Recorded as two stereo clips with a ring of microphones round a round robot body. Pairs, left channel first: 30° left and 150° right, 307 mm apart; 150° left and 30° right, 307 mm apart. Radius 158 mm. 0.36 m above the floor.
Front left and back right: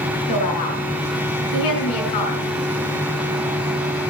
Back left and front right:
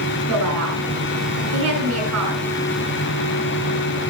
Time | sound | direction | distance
0.3 | a woman speaking | 10° left | 5 m